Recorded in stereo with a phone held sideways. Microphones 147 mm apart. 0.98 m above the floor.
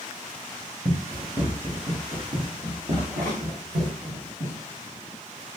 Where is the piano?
I don't hear a piano.